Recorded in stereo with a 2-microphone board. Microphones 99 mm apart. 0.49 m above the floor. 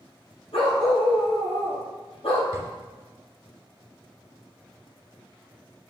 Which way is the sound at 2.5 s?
30° right (ahead or behind).